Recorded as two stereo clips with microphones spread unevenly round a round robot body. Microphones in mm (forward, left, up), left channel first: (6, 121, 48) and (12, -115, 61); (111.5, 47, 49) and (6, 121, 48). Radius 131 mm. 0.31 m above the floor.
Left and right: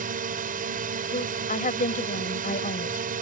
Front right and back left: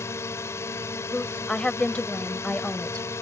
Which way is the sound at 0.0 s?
85° right.